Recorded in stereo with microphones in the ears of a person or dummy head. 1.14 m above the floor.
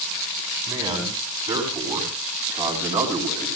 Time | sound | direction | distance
0.7 | a man speaking | 15° right (ahead or behind) | 9 m